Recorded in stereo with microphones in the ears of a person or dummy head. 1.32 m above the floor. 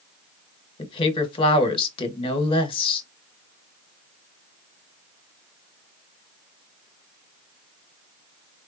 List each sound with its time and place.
0.8 s a woman speaking: 25° left (ahead or behind), 1.5 m